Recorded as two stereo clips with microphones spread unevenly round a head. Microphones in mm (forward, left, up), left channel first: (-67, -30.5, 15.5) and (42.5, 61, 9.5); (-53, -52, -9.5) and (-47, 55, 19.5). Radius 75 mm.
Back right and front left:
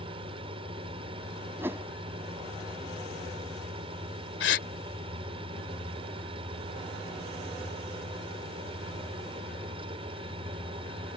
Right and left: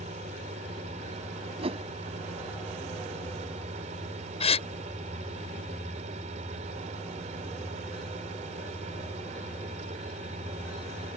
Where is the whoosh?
115° left.